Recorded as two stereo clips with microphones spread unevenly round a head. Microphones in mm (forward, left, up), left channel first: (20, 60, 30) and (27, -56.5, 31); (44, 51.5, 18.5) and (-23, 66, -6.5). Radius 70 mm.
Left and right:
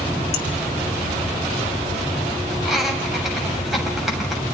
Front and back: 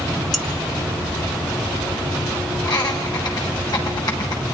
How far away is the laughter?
About 7.5 m.